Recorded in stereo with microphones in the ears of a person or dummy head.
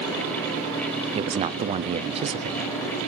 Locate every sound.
1.1 s a man speaking: 30° right (ahead or behind), 0.5 m